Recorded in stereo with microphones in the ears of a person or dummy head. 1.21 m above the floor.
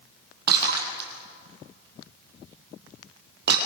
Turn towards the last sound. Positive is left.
turn(degrees=-55)  # may be behind; listen again after turning